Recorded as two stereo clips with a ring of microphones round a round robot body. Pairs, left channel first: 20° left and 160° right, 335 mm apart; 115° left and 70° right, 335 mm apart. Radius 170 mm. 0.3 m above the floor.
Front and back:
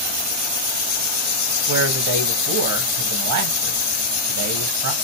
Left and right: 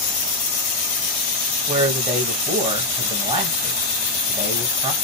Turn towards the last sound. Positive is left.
turn(degrees=-135)